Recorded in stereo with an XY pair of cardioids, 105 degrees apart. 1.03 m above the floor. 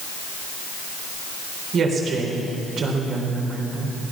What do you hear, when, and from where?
1.7 s a woman speaking: 60° right, 4 m